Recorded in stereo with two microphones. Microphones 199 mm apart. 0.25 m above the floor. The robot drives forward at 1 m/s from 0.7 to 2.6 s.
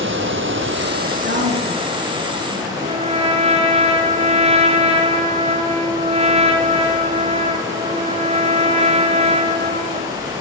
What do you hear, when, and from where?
0.0 s running water: 75° right (ahead or behind), 0.7 m; by 10.4 s 20° right (ahead or behind), 2 m
1.2 s a woman speaking: 60° right (ahead or behind), 3.5 m; by 2.7 s 45° right (ahead or behind), 4 m
2.8 s a trumpet: 30° right (ahead or behind), 1.0 m